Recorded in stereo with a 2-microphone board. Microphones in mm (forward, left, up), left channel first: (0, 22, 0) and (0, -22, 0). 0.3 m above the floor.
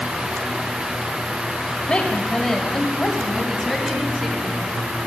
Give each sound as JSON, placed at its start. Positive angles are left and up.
{"t": 1.9, "sound": "a woman speaking", "side_deg": 25, "distance_m": 0.9}